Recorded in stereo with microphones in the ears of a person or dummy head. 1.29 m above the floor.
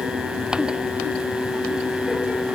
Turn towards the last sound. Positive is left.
No sound to turn to.